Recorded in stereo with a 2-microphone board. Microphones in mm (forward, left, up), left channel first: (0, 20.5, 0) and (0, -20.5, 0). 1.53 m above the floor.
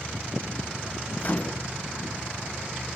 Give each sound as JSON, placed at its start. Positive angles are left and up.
{"t": 1.2, "sound": "a microwave", "side_deg": 35, "distance_m": 0.7}